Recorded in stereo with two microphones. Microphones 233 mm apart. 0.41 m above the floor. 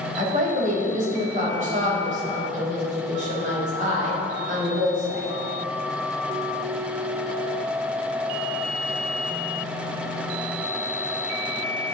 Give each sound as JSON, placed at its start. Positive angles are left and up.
{"t": 0.2, "sound": "a woman speaking", "side_deg": -35, "distance_m": 2.5}